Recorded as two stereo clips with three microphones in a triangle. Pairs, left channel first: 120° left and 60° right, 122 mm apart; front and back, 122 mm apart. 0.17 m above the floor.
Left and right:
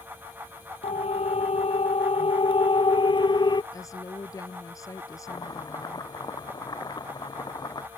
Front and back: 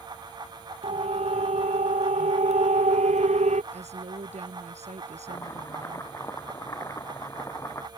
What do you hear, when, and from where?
0.8 s a siren: 150° left; by 3.6 s 170° left
3.7 s a woman speaking: straight behind
5.3 s chopping: 65° left